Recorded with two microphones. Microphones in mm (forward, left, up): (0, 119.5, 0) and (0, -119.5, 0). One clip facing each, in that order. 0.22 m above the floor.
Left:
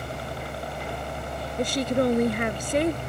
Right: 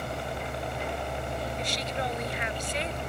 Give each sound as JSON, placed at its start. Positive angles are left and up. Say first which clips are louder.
{"t": 0.0, "sound": "a helicopter", "louder": "even", "side_deg": -20}
{"t": 1.6, "sound": "a woman speaking", "louder": "left 10 dB", "side_deg": 55}